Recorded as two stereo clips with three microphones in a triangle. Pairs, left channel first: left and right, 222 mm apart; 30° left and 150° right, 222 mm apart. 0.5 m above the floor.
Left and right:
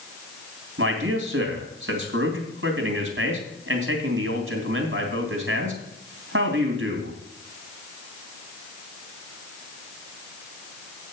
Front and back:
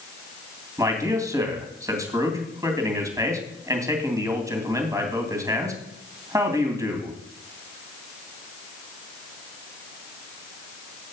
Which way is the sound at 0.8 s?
75° right.